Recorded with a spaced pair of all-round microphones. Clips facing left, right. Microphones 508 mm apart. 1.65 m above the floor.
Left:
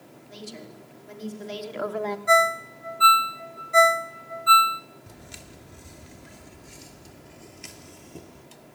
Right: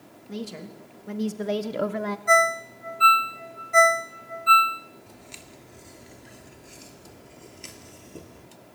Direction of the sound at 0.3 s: 90° right.